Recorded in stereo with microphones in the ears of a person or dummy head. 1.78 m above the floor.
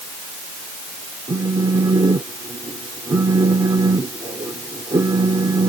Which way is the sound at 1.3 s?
20° right (ahead or behind).